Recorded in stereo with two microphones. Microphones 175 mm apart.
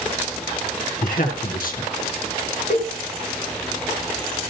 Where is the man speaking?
60° left (ahead or behind), 4.5 m.